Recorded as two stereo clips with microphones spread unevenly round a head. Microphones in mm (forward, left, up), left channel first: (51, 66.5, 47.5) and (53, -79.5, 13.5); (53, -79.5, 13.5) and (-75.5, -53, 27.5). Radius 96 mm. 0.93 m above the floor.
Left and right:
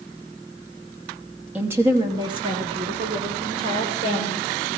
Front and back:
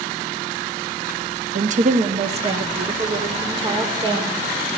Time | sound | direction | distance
1.6 | a woman speaking | 170° right | 1.0 m